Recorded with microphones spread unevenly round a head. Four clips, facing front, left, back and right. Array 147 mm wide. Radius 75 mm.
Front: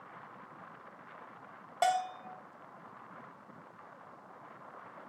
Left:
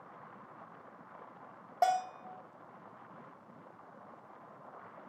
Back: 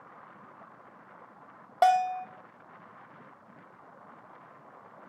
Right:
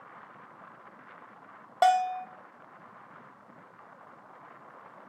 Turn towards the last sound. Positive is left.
turn(degrees=-165)